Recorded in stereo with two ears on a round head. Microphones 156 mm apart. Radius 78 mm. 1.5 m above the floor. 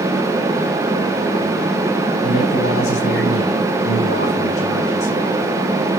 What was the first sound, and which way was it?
A man speaking, 85° left.